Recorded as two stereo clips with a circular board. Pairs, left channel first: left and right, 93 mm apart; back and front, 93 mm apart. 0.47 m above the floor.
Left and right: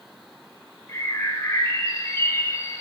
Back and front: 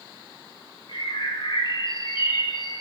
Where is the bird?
150° left, 0.9 m.